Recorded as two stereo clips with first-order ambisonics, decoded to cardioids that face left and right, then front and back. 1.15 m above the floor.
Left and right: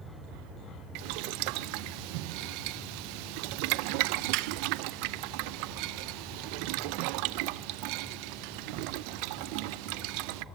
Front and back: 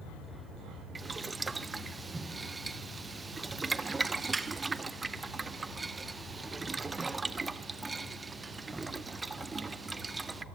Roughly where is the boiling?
Right.